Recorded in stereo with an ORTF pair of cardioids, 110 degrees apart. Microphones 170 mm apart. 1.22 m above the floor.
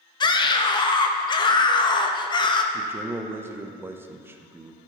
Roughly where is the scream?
Ahead left.